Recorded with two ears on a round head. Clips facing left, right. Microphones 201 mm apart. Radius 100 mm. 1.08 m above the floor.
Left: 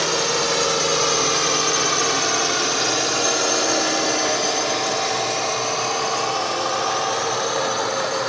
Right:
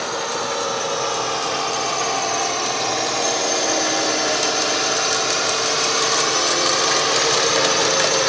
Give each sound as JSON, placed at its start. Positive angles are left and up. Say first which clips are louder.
{"t": 0.0, "sound": "a drone", "louder": "left 3 dB", "side_deg": 40}